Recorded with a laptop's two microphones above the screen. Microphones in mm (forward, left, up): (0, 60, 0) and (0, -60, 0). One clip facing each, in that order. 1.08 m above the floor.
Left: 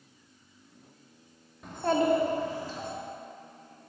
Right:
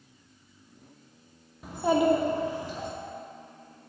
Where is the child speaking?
5° right (ahead or behind), 0.8 m; by 2.9 s 20° right (ahead or behind), 1.6 m.